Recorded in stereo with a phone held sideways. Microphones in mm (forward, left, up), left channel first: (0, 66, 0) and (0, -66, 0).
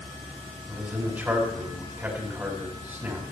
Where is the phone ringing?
No phone ringing in this recording.